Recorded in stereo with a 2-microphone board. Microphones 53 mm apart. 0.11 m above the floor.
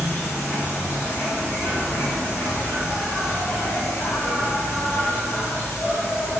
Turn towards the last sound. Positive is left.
turn(degrees=50)  # may be behind; listen again after turning